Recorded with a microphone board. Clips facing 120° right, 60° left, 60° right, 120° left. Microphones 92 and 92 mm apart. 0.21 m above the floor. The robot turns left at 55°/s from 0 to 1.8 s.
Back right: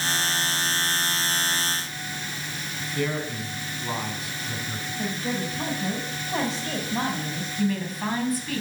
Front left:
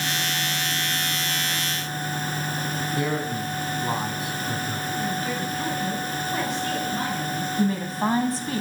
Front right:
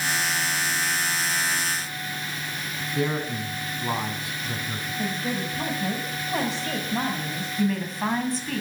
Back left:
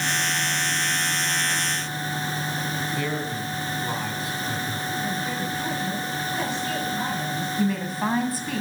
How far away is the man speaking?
About 1.5 m.